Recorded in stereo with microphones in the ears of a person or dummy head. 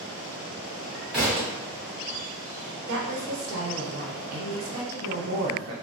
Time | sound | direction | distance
1.1 | a thud | 5° right (ahead or behind) | 1.7 m
2.9 | a woman speaking | 75° right (ahead or behind) | 0.9 m